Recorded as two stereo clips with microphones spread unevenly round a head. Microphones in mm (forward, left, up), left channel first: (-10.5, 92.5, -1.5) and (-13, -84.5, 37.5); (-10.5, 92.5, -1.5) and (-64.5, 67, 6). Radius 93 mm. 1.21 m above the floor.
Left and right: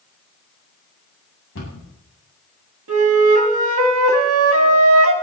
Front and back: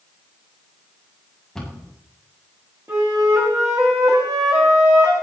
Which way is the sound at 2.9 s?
80° right.